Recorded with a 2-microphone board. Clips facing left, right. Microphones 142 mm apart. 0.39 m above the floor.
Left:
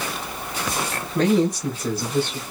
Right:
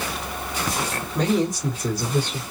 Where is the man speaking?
5° right (ahead or behind), 2.5 m; by 2.4 s 15° right (ahead or behind), 1.9 m.